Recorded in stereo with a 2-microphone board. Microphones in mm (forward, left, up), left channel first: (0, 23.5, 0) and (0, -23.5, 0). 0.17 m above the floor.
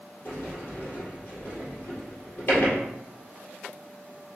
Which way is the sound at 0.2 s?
55° left (ahead or behind).